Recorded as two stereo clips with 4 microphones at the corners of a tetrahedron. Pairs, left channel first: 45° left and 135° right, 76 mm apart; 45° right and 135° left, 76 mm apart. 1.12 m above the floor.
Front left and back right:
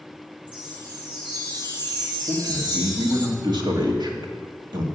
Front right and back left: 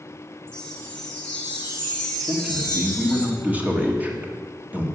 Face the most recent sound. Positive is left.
turn(degrees=-155)